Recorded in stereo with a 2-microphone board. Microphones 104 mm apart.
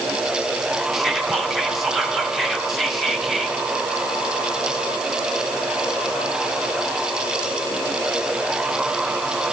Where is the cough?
No cough in this recording.